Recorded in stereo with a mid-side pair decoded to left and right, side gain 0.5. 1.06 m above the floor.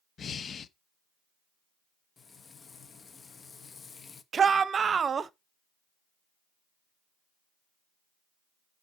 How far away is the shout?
About 0.9 m.